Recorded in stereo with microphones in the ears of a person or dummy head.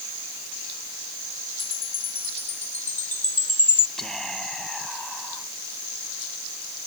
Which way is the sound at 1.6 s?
10° left (ahead or behind).